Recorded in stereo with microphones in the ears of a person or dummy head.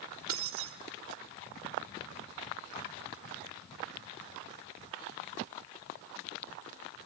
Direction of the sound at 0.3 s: 65° right (ahead or behind).